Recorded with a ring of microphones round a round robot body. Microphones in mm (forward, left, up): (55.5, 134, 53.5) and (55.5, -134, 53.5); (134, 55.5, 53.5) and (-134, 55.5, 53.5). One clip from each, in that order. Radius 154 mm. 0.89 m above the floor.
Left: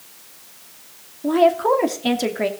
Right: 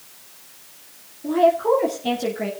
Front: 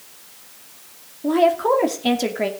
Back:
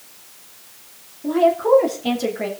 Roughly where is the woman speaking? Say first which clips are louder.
Left 1 dB, back 1 dB; ahead left.